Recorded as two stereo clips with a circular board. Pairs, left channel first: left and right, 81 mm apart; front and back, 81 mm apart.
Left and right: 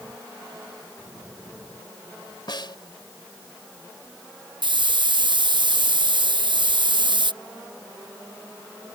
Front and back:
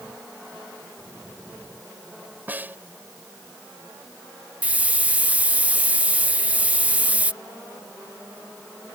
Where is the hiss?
105° right.